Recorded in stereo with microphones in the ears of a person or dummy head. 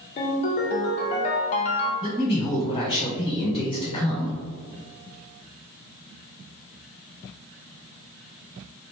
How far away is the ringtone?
About 0.7 m.